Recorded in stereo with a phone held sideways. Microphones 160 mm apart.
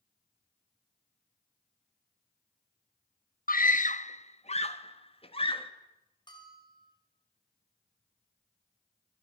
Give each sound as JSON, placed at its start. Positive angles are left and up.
{"t": 3.5, "sound": "a scream", "side_deg": 65, "distance_m": 0.9}
{"t": 6.3, "sound": "a bell", "side_deg": 30, "distance_m": 6.5}